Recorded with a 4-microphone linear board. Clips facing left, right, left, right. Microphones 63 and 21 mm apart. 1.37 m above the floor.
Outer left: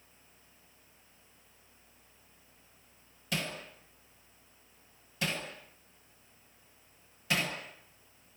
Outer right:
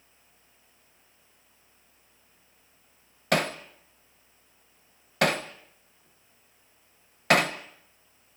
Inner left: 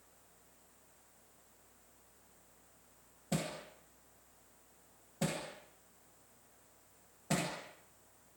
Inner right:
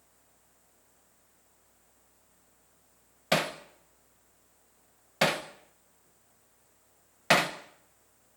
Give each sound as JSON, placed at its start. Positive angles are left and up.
{"t": 3.3, "sound": "hammering", "side_deg": -70, "distance_m": 1.2}